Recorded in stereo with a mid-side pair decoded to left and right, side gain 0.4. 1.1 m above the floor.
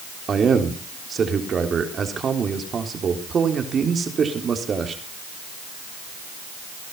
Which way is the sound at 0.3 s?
50° right.